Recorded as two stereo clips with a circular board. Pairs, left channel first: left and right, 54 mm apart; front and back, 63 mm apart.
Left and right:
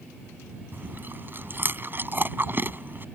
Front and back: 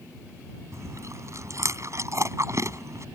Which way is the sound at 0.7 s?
140° right.